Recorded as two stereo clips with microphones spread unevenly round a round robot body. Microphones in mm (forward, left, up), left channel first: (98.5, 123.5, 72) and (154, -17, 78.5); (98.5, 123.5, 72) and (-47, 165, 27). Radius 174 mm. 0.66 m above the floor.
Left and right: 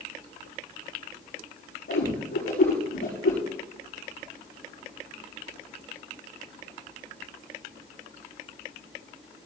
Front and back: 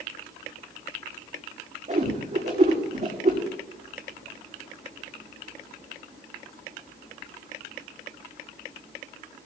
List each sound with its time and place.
1.9 s a whoosh: 125° left, 8 m